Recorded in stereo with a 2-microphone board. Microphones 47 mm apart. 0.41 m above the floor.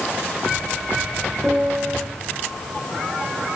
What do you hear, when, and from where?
1.4 s a piano: 10° right (ahead or behind), 8.5 m